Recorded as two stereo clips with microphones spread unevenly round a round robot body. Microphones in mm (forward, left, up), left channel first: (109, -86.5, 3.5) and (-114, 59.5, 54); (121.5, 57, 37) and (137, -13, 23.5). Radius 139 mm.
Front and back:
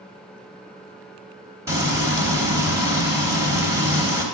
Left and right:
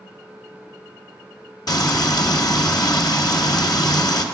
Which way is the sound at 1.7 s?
65° left.